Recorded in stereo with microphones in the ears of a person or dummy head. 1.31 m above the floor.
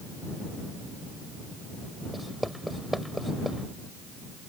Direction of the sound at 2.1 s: 5° right (ahead or behind).